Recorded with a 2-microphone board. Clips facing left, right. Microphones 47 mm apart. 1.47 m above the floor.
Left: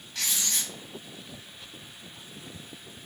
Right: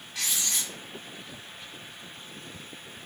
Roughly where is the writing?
Centre.